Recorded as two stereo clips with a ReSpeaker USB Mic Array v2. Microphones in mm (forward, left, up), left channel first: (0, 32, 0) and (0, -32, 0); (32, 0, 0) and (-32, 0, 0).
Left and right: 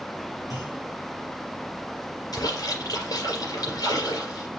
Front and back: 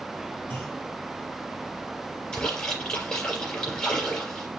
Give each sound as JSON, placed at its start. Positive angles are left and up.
{"t": 0.5, "sound": "a clunk", "azimuth_deg": 65, "distance_m": 4.0}
{"t": 2.3, "sound": "a splash", "azimuth_deg": 80, "distance_m": 4.5}